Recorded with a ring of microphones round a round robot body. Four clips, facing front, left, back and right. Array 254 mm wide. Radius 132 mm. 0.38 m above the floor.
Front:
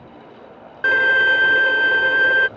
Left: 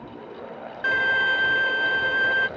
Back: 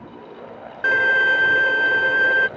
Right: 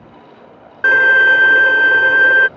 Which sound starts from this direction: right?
A violin, at 0.8 s.